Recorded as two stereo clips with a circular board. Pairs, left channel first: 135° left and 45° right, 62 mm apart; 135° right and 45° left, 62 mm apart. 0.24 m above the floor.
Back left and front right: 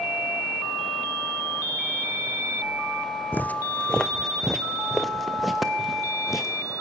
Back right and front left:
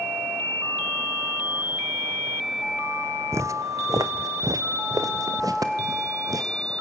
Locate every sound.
3.3 s footsteps: 80° left, 0.5 m; by 6.7 s 40° left, 2.5 m